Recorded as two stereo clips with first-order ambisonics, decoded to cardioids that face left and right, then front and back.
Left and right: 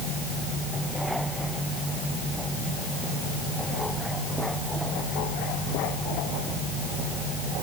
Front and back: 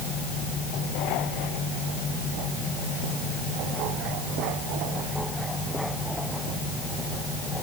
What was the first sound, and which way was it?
Only background noise.